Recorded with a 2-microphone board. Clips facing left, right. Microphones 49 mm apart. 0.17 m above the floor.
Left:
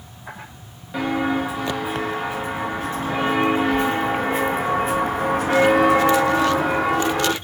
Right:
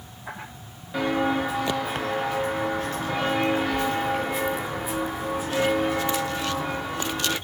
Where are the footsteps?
10° left (ahead or behind), 3 m; by 7.3 s 60° left (ahead or behind), 1.2 m.